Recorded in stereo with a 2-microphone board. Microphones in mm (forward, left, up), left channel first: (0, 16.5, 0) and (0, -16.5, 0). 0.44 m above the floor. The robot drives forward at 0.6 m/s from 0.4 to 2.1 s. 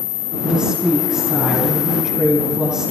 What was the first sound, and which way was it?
A woman speaking, 20° right (ahead or behind).